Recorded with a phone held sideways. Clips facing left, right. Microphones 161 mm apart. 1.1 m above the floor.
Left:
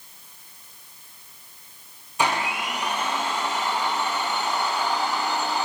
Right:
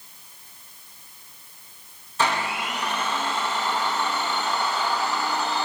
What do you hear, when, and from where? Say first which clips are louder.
2.2 s a blender: even; 15° left (ahead or behind), 1.1 m